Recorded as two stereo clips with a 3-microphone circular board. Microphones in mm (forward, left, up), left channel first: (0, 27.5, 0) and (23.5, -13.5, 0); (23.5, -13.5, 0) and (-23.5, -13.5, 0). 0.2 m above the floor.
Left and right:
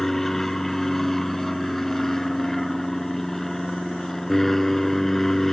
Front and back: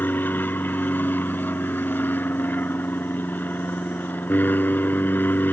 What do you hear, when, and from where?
0.0 s an aircraft: 40° left